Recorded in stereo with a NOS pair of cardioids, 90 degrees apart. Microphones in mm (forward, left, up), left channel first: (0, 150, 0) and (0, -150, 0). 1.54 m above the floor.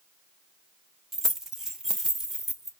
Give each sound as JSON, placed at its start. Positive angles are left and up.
{"t": 1.1, "sound": "keys jangling", "azimuth_deg": 0, "distance_m": 1.3}